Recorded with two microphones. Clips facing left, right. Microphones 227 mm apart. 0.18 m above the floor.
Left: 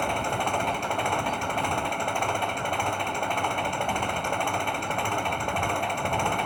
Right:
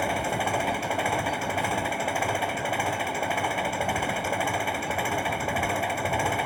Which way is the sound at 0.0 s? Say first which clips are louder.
Right 1 dB; 5° right (ahead or behind).